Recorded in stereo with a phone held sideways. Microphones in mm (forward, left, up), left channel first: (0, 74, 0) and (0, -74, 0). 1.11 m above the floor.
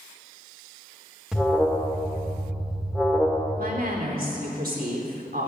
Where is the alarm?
5° right (ahead or behind), 2 m.